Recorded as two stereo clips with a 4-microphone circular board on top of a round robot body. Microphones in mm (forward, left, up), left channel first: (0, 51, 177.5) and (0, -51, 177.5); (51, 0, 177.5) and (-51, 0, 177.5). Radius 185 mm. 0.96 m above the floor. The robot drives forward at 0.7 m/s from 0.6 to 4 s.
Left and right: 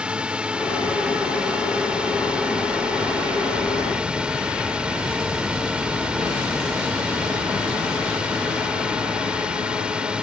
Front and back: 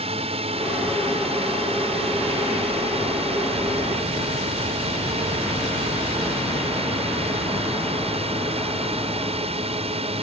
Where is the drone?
170° right.